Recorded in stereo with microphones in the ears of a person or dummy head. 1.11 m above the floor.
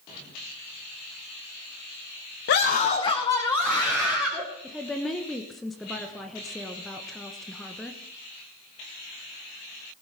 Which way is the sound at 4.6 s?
5° left (ahead or behind).